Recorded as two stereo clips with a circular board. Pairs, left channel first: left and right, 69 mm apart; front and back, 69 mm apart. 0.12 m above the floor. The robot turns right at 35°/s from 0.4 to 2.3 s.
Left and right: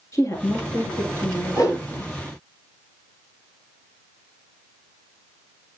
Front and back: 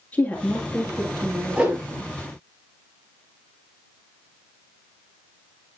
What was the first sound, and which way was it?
A woman speaking, 65° left.